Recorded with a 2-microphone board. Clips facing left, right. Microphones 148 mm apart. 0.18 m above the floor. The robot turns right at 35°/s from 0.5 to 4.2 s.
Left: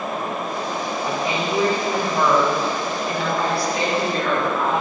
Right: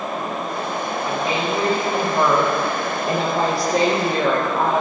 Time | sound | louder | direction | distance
1.0 | a woman speaking | right 1 dB | 150° left | 6.5 m